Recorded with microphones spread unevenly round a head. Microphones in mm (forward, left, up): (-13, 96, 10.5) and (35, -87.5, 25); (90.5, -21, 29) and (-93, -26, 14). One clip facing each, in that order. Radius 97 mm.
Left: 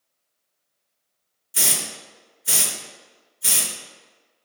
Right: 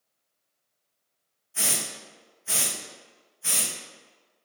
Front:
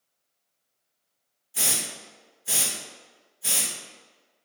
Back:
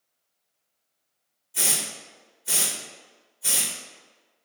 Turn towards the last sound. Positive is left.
turn(degrees=85)